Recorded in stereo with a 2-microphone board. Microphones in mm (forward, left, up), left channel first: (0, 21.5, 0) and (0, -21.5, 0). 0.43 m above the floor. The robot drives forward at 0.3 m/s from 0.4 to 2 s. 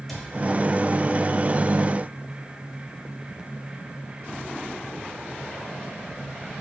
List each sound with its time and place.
0.1 s a cupboard door: 5° left (ahead or behind), 1.4 m